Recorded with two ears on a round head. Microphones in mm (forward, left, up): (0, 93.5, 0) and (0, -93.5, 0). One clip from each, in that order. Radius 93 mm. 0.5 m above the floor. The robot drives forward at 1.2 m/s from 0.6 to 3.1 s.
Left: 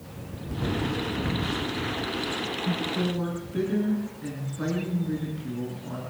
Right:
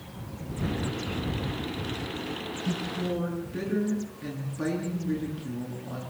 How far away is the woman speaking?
About 7 m.